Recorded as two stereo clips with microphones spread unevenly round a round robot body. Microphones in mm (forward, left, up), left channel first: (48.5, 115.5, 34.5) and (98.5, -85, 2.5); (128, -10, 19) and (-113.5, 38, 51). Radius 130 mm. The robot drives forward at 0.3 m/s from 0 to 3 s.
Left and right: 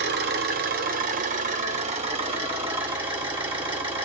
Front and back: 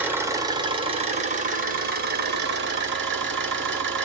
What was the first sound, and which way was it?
An engine running, 105° right.